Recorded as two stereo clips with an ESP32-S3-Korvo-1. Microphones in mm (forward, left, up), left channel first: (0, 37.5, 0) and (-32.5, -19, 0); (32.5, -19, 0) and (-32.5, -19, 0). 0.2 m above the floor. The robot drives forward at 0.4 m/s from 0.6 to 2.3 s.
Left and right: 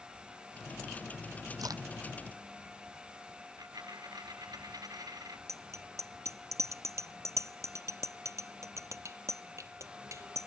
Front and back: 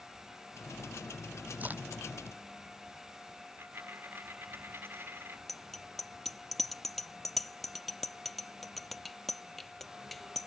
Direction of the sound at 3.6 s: 125° right.